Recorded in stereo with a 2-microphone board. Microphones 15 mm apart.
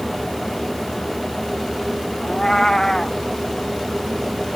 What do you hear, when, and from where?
2.2 s a cat meowing: 40° left (ahead or behind)